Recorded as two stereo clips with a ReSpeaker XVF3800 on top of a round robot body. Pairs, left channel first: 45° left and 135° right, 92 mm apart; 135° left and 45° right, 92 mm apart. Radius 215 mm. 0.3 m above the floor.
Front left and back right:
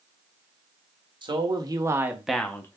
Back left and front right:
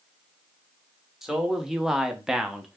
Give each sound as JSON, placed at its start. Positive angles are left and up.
{"t": 1.2, "sound": "a man speaking", "azimuth_deg": -130, "distance_m": 1.6}